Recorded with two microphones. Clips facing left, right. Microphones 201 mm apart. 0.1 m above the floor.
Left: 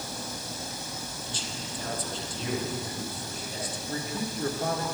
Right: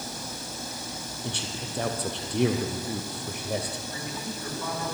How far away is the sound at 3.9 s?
About 7.5 m.